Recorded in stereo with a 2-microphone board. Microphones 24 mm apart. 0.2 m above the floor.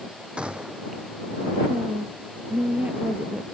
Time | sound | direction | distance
0.4 | a gunshot | 50° right (ahead or behind) | ?
1.7 | a woman speaking | 70° right (ahead or behind) | ?